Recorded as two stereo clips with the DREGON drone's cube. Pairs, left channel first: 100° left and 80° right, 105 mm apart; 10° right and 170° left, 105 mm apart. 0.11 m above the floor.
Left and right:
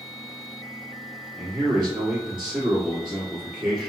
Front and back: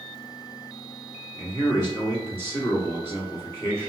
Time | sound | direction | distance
1.4 | a man speaking | 5° right | 1.4 m